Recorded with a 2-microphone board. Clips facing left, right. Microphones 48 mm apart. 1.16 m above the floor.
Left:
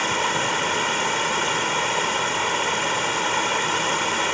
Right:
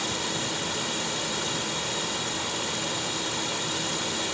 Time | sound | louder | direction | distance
0.0 | running water | left 8 dB | 50° left (ahead or behind) | ?